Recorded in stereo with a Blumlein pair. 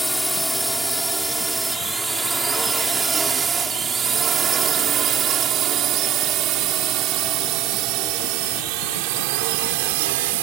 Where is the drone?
Straight ahead; by 10.4 s 50° right.